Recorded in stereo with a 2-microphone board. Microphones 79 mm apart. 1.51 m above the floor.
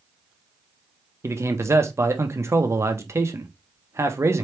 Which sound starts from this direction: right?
A man speaking, at 1.2 s.